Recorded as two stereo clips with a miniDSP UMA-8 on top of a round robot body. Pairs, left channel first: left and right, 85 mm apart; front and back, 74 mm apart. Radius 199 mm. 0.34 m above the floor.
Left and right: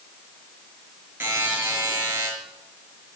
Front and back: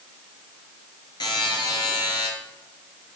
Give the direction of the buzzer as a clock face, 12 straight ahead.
1 o'clock.